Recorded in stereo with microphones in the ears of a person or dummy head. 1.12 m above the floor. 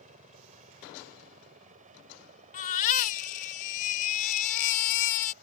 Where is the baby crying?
45° left (ahead or behind).